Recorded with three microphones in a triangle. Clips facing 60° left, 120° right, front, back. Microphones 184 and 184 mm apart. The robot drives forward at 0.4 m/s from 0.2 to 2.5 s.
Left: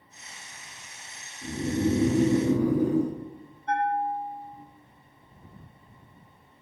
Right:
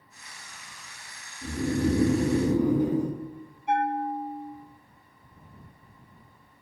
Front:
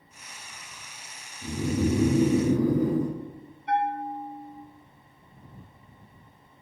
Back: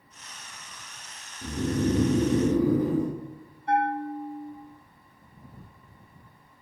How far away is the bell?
About 0.6 m.